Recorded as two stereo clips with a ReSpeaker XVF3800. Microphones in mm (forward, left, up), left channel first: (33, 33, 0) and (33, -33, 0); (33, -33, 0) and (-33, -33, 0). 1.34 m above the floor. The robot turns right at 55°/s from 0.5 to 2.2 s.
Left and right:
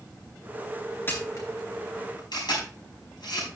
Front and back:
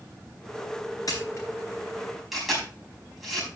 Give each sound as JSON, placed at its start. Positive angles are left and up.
{"t": 1.1, "sound": "a camera shutter", "azimuth_deg": 30, "distance_m": 4.5}